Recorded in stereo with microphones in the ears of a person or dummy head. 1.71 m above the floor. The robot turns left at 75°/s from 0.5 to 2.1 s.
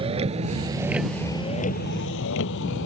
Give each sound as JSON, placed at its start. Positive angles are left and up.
{"t": 0.0, "sound": "a vehicle", "side_deg": -30}